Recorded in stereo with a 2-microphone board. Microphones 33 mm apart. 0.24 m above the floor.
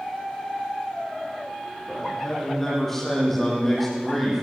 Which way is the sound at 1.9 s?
15° left (ahead or behind).